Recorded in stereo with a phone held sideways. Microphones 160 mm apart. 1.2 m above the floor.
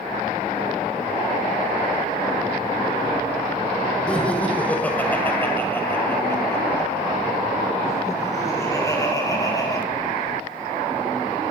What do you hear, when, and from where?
4.1 s laughter: 5° left (ahead or behind), 4.5 m; by 9.8 s 20° left (ahead or behind), 7 m